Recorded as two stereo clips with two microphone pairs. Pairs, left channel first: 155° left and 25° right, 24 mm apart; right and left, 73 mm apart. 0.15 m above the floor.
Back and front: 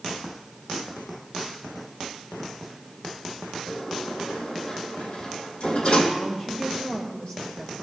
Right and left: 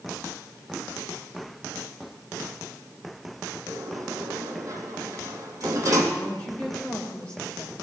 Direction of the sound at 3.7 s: 125° left.